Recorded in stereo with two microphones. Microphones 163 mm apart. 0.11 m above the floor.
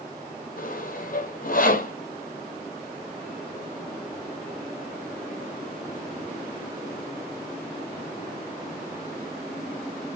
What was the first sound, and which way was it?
Sawing, 60° left (ahead or behind).